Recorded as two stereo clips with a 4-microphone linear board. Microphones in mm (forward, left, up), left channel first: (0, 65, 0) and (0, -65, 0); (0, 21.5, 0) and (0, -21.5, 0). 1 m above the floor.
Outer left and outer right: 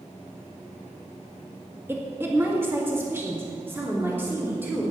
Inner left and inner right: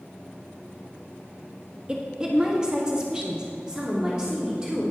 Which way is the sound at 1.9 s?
20° right (ahead or behind).